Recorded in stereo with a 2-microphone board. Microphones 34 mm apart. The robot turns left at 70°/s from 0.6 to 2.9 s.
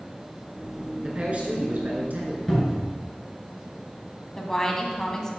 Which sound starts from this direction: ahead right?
A man speaking, at 1.0 s.